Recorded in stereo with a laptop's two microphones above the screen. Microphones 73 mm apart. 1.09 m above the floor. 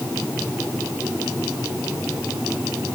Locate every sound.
Only background noise.